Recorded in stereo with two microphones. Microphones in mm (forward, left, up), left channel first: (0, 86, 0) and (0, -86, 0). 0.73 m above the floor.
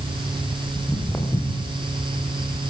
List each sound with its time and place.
0.8 s footsteps: 10° left (ahead or behind), 5.5 m